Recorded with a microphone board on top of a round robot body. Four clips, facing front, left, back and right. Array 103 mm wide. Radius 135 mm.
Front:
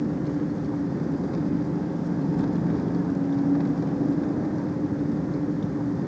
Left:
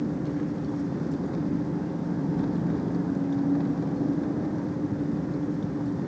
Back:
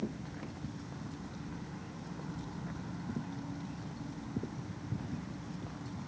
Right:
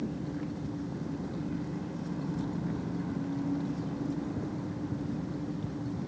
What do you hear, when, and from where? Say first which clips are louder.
0.0 s an engine running: left 7 dB, front 15 dB; 25° left